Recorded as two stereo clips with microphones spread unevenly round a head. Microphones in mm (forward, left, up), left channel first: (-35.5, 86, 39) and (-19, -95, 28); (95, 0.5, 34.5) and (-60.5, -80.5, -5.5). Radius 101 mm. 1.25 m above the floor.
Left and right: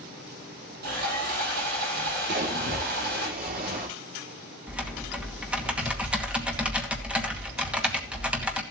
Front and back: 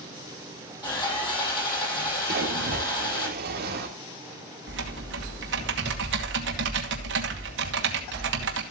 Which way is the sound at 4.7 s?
170° right.